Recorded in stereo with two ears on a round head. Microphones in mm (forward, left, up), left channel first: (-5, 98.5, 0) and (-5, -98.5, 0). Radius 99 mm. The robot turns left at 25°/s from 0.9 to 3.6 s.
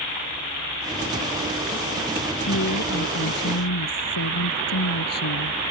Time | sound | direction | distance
2.5 | a woman speaking | 55° left (ahead or behind) | ?